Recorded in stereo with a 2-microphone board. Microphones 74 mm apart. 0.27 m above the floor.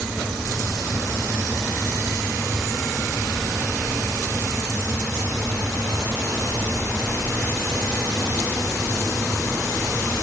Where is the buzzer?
No buzzer in this recording.